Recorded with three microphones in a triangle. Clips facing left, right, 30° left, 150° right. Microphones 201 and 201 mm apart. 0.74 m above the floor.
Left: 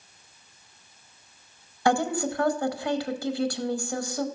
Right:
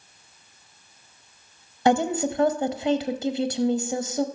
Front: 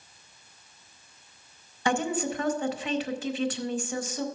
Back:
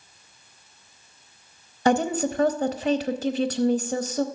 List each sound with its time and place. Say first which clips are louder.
1.9 s a woman speaking: right 3 dB, back 6 dB; 150° right, 0.7 m